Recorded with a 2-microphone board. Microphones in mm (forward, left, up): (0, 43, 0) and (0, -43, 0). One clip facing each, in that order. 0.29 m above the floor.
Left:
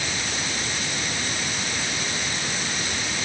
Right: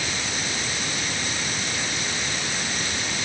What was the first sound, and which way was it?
Only background noise.